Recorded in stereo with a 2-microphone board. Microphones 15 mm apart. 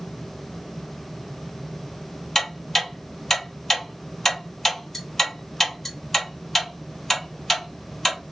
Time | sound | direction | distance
2.4 | ticking | 15° left (ahead or behind) | 2.5 m